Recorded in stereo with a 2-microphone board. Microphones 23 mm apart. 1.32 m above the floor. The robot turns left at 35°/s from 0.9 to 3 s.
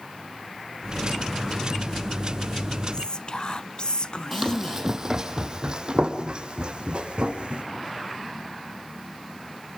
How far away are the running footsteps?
About 3 m.